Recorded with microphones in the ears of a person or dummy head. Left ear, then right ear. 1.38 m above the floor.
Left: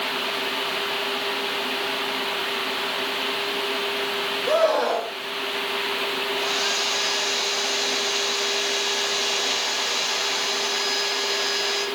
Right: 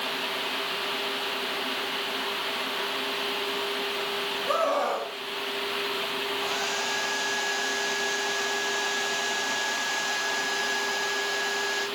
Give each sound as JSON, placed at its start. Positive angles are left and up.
{"t": 4.5, "sound": "a scream", "side_deg": 30, "distance_m": 6.5}
{"t": 6.3, "sound": "a hair dryer", "side_deg": 60, "distance_m": 7.0}